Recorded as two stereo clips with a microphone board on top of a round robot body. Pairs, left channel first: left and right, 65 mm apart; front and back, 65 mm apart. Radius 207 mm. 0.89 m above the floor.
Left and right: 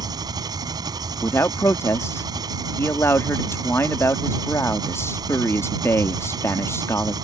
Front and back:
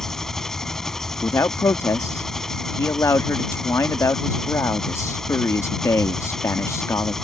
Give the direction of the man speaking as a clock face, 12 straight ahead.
11 o'clock.